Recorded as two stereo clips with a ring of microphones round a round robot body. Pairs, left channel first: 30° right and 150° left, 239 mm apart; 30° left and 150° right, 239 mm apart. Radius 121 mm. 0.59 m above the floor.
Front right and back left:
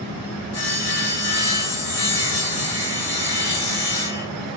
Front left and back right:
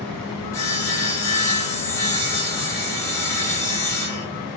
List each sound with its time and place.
0.5 s sawing: 45° right, 1.2 m